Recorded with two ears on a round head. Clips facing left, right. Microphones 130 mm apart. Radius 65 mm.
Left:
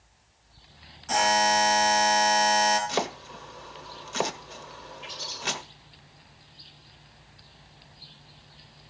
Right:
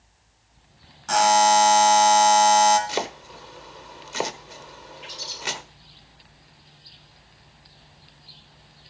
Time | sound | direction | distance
1.1 | a buzzer | 75° right (ahead or behind) | 4 m
2.9 | chopping | 10° right (ahead or behind) | 1.1 m
5.0 | a bird | 55° right (ahead or behind) | 7 m